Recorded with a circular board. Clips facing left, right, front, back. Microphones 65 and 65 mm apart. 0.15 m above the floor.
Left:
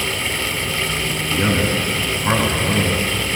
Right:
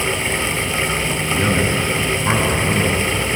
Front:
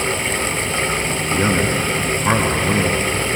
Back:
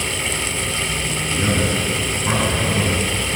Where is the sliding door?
No sliding door in this recording.